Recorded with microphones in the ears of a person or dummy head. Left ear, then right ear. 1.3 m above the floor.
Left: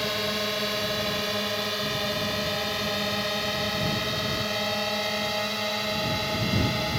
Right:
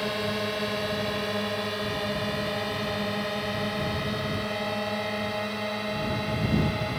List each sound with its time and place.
0.0 s a drone: 20° left (ahead or behind); by 7.0 s 25° left (ahead or behind)